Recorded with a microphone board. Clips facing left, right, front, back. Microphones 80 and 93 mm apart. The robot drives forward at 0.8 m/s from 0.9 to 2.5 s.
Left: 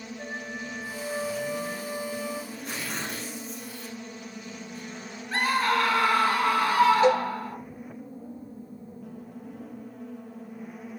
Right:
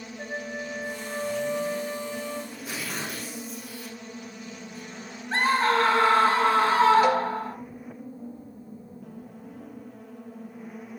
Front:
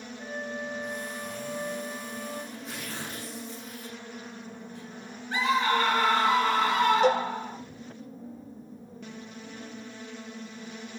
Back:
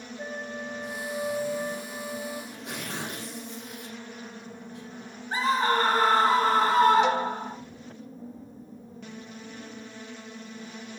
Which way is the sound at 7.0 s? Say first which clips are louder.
Left 1 dB, front 2 dB; 35° left.